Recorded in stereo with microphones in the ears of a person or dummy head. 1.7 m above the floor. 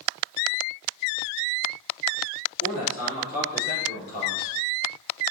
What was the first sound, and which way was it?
A man speaking, 75° left (ahead or behind).